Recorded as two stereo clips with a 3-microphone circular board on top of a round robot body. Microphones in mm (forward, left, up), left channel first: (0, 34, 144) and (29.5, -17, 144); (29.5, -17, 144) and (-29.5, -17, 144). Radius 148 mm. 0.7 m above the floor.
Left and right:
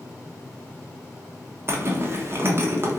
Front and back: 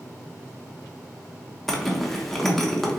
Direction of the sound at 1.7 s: 85° right.